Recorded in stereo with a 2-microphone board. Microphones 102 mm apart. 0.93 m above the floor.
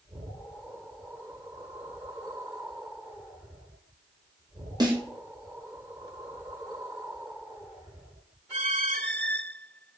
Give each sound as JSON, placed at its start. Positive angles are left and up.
{"t": 4.8, "sound": "a snare drum", "side_deg": -40, "distance_m": 0.8}